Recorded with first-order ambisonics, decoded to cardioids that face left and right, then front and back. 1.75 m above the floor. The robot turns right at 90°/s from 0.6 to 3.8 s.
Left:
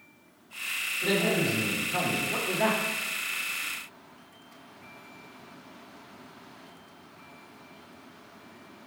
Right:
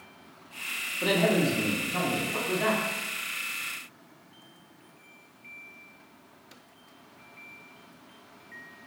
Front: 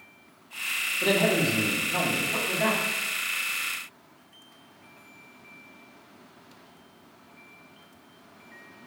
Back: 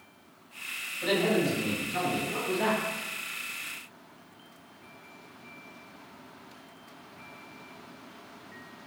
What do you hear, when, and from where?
1.0 s a man speaking: 45° right, 1.0 m; by 2.8 s 120° left, 1.0 m